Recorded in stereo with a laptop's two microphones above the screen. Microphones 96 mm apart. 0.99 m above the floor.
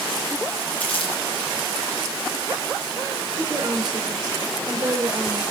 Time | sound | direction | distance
0.8 | crumpling | 15° left (ahead or behind) | 6 m
3.4 | a woman speaking | 45° right (ahead or behind) | 3 m